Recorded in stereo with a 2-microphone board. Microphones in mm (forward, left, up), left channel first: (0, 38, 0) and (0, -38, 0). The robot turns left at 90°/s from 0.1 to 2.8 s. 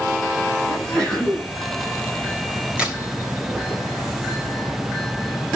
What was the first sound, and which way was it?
A sneeze, 45° left.